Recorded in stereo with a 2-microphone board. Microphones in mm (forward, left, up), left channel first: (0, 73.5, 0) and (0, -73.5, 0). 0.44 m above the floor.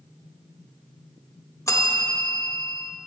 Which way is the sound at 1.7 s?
20° left (ahead or behind).